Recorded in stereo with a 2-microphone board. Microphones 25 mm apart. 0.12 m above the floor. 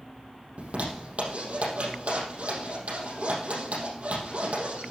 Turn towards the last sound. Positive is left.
turn(degrees=-65)  # may be behind; listen again after turning